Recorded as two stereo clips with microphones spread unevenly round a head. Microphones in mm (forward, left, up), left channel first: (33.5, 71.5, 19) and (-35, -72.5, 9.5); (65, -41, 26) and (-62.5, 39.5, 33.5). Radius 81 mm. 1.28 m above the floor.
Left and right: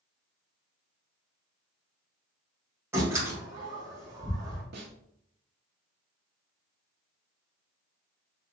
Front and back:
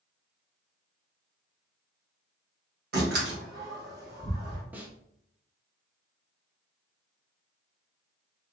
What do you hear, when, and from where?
2.9 s a door slam: 170° left, 1.5 m
4.7 s a snare drum: 130° right, 0.7 m